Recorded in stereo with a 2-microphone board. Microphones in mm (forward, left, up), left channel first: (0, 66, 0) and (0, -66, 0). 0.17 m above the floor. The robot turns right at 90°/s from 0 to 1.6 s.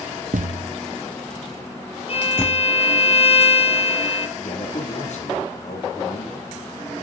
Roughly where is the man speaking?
Left.